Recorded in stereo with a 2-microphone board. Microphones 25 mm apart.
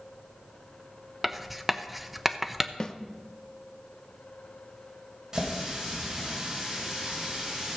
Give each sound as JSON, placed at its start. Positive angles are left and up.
{"t": 1.2, "sound": "writing", "side_deg": -5, "distance_m": 0.6}
{"t": 2.8, "sound": "a snare drum", "side_deg": 25, "distance_m": 0.7}
{"t": 5.3, "sound": "a running tap", "side_deg": -25, "distance_m": 5.0}